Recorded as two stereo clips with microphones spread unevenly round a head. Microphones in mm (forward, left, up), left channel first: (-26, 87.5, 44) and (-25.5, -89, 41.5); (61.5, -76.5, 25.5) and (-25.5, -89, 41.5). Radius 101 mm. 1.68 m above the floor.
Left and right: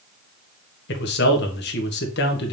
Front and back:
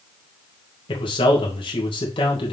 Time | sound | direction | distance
0.9 | a man speaking | 55° left | 1.5 m